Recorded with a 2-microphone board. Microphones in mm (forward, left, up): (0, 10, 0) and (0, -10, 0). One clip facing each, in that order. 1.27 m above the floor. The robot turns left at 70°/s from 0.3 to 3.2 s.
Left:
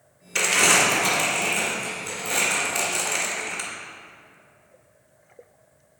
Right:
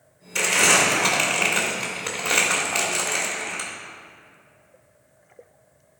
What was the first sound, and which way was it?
Crumpling, 20° left (ahead or behind).